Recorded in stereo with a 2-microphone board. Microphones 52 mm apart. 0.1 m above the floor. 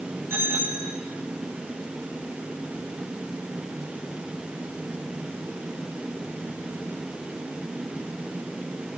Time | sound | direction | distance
0.3 | a bicycle bell | 55° right (ahead or behind) | 6 m